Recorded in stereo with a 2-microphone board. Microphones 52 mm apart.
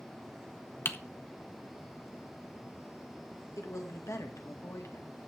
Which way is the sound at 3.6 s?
75° left (ahead or behind).